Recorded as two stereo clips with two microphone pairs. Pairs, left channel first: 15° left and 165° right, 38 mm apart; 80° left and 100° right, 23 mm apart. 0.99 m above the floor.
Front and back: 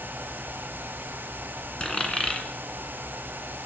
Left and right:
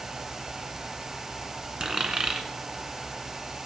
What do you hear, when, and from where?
1.8 s a dropped coin: 50° right, 1.8 m